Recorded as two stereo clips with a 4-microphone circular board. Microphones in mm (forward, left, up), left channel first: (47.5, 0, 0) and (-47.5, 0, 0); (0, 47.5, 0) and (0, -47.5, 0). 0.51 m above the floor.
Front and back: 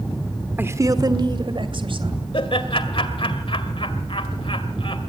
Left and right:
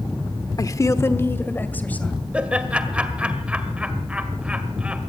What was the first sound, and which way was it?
A woman speaking, 120° left.